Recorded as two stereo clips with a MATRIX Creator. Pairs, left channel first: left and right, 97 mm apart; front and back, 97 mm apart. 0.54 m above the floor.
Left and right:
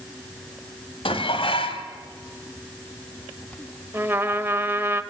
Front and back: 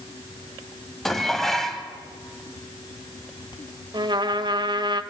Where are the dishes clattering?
85° left, 2 m.